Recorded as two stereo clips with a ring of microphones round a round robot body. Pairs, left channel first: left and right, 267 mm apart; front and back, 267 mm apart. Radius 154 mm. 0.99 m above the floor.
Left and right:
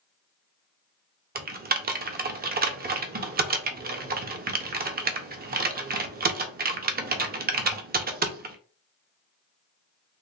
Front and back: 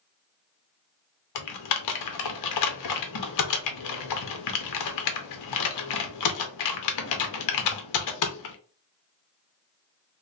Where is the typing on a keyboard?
30° right, 0.6 m.